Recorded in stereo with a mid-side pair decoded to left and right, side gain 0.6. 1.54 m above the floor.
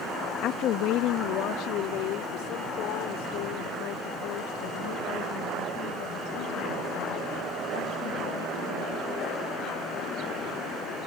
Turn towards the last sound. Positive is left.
turn(degrees=75)